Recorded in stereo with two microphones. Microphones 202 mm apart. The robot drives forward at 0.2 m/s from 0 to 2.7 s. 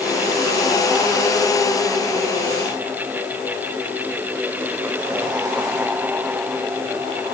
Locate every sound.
Only background noise.